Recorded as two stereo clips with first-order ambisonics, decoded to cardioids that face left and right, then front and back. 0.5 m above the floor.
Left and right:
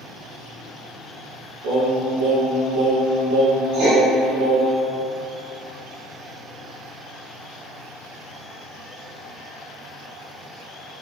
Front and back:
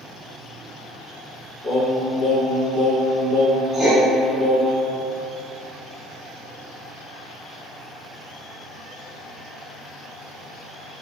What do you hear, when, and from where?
1.6 s singing: 85° right, 0.7 m
3.7 s writing: 95° right, 0.9 m